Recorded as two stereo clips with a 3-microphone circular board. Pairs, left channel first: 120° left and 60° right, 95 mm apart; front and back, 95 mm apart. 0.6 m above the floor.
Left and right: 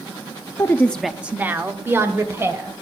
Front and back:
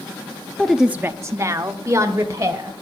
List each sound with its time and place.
0.6 s a woman speaking: 80° left, 0.6 m; by 2.7 s 120° right, 2.5 m